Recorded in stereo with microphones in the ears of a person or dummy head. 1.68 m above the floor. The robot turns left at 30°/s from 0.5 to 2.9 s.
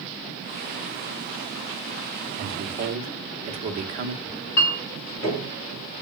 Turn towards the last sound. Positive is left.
turn(degrees=50)  # may be behind; listen again after turning